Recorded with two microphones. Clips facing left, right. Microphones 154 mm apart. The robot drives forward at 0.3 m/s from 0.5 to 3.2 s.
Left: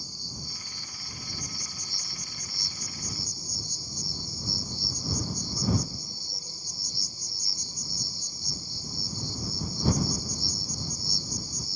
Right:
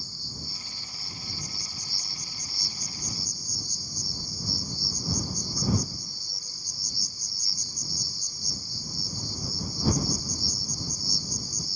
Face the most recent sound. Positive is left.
turn(degrees=25)  # may be behind; listen again after turning